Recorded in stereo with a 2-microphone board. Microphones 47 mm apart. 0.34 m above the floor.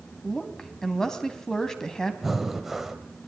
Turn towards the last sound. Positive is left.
turn(degrees=-5)  # may be behind; listen again after turning